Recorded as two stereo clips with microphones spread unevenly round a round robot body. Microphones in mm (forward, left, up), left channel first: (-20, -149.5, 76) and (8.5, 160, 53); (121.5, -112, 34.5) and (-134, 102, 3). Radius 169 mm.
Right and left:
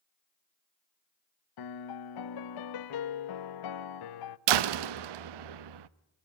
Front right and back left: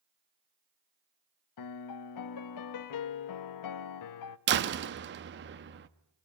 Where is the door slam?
80° left, 0.7 m.